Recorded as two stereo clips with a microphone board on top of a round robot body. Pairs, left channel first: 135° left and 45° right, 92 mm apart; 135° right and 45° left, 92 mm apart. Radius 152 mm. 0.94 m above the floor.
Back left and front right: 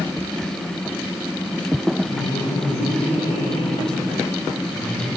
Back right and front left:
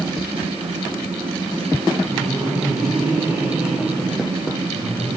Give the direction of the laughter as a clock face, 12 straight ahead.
8 o'clock.